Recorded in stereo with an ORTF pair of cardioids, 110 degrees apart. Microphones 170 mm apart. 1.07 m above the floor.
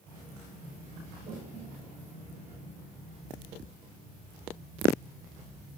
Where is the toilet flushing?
45° right, 5.5 m.